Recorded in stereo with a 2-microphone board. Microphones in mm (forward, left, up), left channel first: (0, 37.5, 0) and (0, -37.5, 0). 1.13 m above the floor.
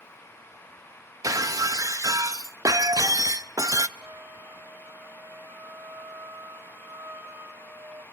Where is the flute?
35° right (ahead or behind), 2 m.